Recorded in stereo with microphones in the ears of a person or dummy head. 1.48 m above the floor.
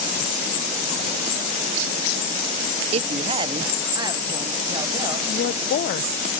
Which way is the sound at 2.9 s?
40° right (ahead or behind).